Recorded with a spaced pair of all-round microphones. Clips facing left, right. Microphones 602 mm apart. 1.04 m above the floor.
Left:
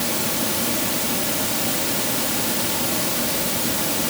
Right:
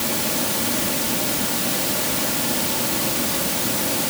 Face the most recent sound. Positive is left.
No sound to turn to.